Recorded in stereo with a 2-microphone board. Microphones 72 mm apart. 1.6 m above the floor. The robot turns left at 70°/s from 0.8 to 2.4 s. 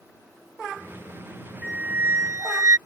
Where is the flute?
10° right; by 2.8 s 65° right.